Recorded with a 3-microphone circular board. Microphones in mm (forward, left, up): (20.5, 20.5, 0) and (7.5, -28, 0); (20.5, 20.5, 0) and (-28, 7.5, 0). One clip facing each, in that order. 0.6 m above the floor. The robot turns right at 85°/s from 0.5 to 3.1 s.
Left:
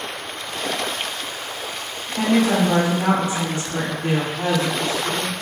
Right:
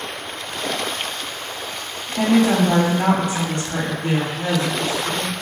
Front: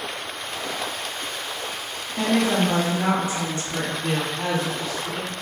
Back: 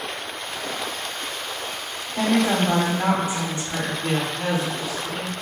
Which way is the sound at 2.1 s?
160° left.